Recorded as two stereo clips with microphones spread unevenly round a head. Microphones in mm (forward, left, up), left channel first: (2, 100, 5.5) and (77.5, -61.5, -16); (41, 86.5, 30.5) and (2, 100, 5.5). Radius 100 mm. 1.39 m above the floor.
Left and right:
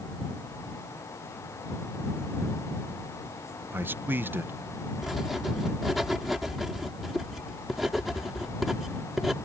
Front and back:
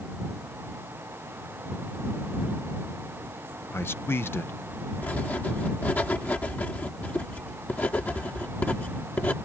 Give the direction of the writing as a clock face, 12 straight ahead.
11 o'clock.